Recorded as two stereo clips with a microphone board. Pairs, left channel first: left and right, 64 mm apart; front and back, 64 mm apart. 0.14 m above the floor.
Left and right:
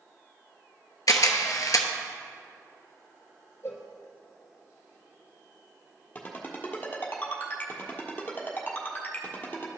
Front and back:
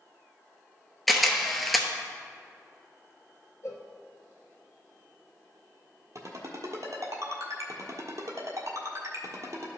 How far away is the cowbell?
About 1.3 m.